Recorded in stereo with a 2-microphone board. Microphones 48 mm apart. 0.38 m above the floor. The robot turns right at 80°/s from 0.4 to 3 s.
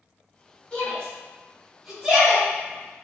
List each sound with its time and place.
0.7 s a shout: 20° left (ahead or behind), 1.2 m; by 2.5 s 20° right (ahead or behind), 1.2 m